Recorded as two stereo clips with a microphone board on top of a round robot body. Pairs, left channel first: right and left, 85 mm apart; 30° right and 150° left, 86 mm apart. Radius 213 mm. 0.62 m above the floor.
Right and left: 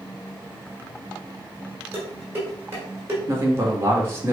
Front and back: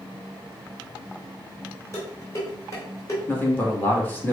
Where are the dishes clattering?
30° left, 2 m.